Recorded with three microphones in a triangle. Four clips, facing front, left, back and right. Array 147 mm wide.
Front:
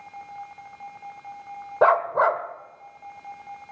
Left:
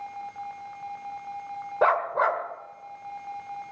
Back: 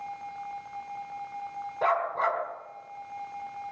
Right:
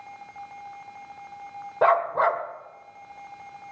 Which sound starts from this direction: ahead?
A dog barking, at 1.8 s.